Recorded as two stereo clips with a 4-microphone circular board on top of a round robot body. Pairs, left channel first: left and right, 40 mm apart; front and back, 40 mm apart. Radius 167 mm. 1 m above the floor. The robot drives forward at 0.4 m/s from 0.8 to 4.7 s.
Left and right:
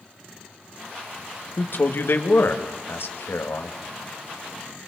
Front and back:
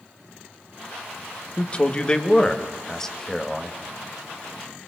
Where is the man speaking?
60° left, 2 m; by 3.8 s 85° left, 1.9 m.